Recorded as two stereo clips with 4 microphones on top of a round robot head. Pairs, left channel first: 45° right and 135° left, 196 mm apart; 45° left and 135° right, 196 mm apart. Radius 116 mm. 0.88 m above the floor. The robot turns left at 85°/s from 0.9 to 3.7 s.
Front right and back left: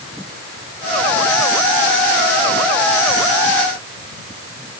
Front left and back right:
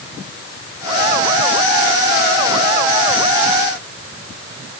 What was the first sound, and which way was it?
Only background noise.